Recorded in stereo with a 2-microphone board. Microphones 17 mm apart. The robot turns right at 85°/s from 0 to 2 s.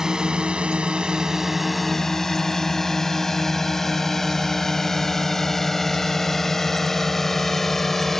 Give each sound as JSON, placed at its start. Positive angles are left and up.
{"t": 0.0, "sound": "a drone", "side_deg": -35}